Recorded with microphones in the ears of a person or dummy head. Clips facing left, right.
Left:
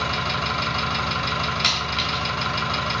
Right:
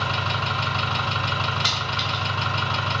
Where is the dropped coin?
45° left (ahead or behind), 1.8 m.